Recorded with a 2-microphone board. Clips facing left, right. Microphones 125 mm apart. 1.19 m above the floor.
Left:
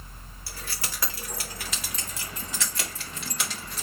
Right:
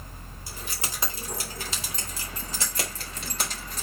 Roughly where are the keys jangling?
Centre.